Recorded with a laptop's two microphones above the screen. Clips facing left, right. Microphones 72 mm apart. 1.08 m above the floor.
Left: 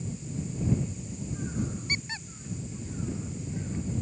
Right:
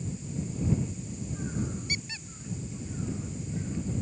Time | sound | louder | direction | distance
1.9 | a squeak | left 3 dB | 35° left (ahead or behind) | ?